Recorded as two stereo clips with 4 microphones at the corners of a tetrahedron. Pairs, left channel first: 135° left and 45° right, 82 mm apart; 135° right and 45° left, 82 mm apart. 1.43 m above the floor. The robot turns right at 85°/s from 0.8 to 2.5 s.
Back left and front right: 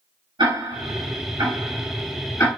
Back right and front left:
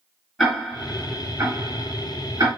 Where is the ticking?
45° right, 4.5 m; by 2.5 s 95° left, 4.5 m.